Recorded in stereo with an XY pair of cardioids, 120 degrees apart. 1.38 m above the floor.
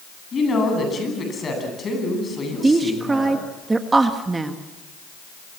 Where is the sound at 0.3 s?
30° left, 10 m.